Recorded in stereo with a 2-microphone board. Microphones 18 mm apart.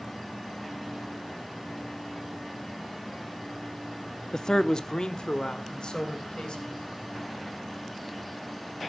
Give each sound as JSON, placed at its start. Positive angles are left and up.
{"t": 4.3, "sound": "a man speaking", "side_deg": 40, "distance_m": 0.7}